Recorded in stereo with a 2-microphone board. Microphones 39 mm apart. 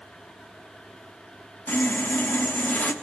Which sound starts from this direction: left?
Sawing, at 1.7 s.